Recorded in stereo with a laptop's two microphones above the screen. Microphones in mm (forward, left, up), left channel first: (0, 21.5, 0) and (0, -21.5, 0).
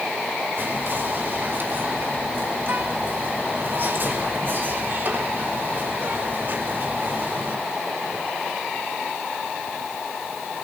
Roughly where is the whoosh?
I don't hear a whoosh.